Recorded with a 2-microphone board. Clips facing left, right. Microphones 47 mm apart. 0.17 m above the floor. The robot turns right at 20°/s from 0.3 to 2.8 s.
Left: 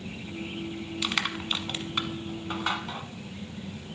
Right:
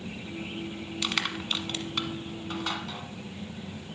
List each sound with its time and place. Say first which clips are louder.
1.0 s crushing: left 1 dB; 5° left (ahead or behind), 1.0 m; by 3.1 s 25° left (ahead or behind), 1.0 m